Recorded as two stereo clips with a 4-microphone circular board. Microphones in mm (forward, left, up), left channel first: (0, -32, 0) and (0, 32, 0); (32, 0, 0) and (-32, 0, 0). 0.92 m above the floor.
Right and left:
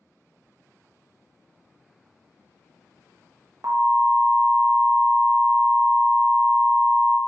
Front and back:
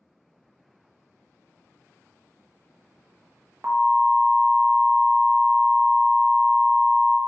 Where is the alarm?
125° left, 0.7 m.